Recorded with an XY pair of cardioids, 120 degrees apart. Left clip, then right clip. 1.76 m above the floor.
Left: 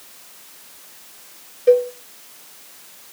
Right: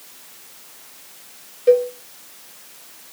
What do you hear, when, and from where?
1.7 s a cowbell: 5° left, 0.9 m